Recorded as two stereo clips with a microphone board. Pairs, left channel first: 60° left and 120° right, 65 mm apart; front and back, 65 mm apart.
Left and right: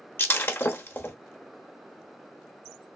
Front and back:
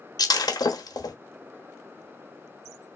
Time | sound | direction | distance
0.2 | breaking glass | 5° left | 0.8 m